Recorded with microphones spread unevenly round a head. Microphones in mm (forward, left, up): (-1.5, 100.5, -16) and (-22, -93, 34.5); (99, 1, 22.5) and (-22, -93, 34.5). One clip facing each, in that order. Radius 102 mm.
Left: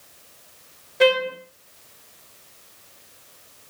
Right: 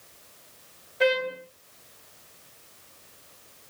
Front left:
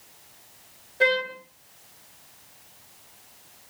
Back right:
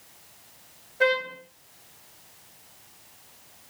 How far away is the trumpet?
About 3.5 m.